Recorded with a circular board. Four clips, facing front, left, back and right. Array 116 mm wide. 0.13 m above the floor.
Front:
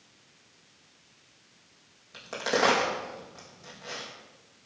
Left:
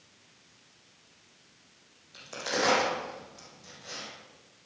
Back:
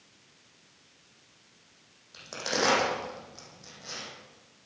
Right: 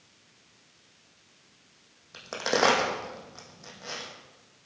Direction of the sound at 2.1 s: 75° right.